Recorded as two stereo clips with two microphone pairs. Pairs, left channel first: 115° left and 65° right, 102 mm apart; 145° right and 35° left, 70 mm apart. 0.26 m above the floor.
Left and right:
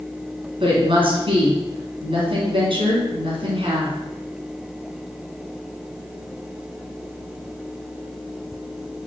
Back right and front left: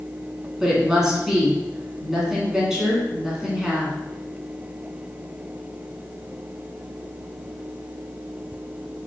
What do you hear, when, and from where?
0.6 s a woman speaking: 45° right, 2 m